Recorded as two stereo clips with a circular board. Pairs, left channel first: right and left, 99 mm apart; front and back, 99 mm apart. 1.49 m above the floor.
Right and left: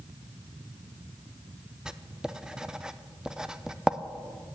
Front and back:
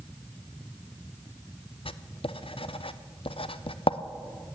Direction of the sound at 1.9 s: 5° left.